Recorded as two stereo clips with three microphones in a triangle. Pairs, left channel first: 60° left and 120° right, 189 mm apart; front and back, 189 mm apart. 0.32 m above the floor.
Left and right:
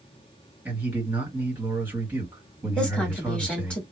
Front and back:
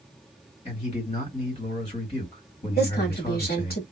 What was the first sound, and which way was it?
A man speaking, 40° right.